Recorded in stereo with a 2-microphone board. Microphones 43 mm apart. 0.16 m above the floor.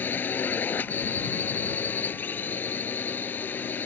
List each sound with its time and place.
0.0 s a drone: 50° left (ahead or behind)